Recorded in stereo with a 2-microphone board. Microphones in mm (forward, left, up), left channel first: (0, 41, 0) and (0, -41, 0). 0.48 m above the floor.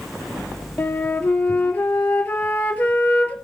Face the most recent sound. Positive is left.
turn(degrees=20)  # may be behind; listen again after turning